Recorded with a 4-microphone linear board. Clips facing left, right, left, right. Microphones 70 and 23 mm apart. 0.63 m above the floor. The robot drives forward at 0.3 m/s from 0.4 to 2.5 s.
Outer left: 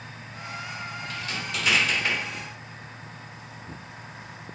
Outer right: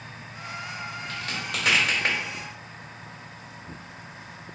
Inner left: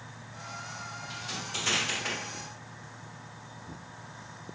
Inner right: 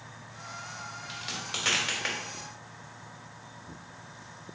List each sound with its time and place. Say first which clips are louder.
1.1 s a crack: even, inner right 1 dB; 65° right (ahead or behind), 1.8 m; by 2.2 s 60° right (ahead or behind), 1.9 m